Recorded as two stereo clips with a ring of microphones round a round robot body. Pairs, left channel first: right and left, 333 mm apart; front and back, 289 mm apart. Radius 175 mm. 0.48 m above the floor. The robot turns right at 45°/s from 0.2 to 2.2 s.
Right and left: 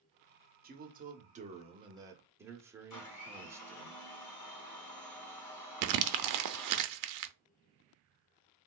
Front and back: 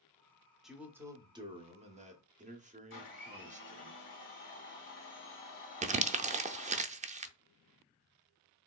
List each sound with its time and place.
0.6 s a man speaking: 90° left, 0.9 m; by 3.9 s 160° left, 0.9 m
2.9 s a blender: 50° right, 1.8 m
5.8 s crumpling: 115° left, 0.5 m